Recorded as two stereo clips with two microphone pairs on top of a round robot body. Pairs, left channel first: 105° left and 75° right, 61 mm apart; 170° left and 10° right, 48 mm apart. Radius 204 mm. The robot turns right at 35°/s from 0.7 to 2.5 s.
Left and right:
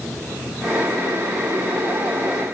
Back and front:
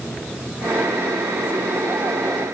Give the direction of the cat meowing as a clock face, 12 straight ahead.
I don't hear a cat meowing.